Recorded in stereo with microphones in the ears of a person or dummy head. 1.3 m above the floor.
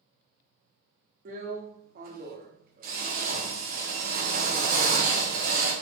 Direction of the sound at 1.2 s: 40° right (ahead or behind).